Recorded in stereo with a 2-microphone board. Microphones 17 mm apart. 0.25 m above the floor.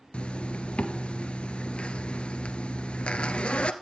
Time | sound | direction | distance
0.1 | a zipper | 80° left | 1.5 m